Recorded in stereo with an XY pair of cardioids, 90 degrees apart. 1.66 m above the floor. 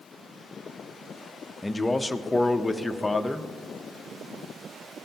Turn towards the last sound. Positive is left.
turn(degrees=15)